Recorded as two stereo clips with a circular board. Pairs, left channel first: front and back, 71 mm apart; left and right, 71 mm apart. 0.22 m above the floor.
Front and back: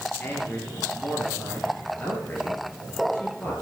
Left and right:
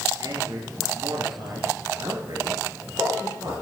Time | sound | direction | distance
0.2 | a man speaking | 65° right | 4 m